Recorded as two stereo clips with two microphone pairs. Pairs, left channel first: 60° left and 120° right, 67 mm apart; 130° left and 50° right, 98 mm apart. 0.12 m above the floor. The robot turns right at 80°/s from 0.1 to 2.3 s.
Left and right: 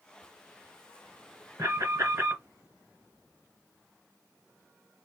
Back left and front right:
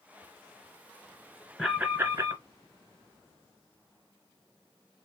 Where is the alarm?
140° right, 2.5 m; by 2.4 s 80° right, 2.5 m.